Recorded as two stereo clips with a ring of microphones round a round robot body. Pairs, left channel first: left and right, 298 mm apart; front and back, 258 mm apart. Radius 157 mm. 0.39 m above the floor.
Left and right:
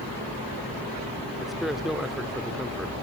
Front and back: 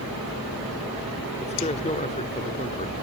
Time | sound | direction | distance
1.4 | a man speaking | straight ahead | 1.2 m